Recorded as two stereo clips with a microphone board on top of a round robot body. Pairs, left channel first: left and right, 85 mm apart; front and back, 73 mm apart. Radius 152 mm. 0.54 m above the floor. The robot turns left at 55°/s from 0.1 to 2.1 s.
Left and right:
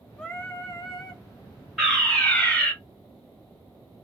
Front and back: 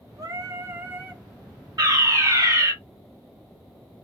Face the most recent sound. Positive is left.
turn(degrees=165)